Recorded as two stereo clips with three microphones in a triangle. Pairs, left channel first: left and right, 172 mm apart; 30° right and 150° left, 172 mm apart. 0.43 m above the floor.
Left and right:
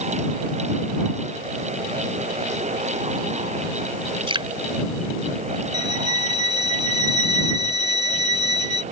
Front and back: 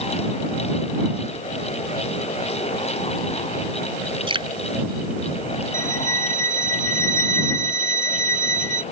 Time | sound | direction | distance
4.3 | dripping | 150° right | ?
5.7 | a violin | 80° right | ?